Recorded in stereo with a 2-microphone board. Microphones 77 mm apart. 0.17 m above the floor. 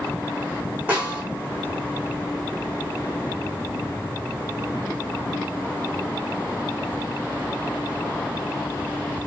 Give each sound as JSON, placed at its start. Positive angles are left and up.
{"t": 0.9, "sound": "a snare drum", "side_deg": -25, "distance_m": 2.5}